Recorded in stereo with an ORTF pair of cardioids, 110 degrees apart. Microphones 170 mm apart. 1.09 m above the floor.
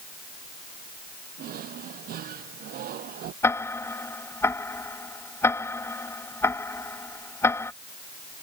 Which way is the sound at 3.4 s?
15° left.